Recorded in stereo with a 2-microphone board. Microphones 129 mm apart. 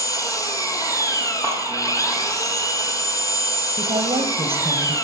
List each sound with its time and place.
0.0 s an engine running: 30° left (ahead or behind), 0.9 m
1.4 s a clap: 20° left (ahead or behind), 5.5 m
3.8 s a woman speaking: 50° right (ahead or behind), 1.7 m